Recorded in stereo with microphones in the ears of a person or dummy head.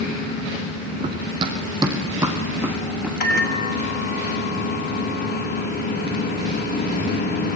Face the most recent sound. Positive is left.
turn(degrees=50)  # may be behind; listen again after turning